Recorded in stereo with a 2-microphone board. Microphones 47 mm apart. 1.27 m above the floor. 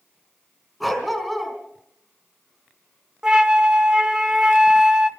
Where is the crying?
I don't hear crying.